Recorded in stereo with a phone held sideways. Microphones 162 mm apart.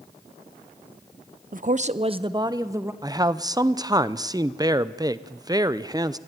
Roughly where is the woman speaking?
Right.